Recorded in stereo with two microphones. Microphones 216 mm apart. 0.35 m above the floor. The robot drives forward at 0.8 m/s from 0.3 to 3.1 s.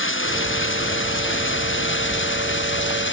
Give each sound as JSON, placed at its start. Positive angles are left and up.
{"t": 0.0, "sound": "running water", "side_deg": 65}